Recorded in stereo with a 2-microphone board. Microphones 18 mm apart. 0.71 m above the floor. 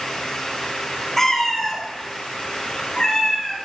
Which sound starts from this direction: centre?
A cat meowing, at 1.2 s.